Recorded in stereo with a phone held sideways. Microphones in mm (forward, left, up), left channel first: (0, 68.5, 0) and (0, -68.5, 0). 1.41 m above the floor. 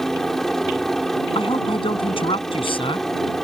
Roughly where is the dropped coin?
I don't hear a dropped coin.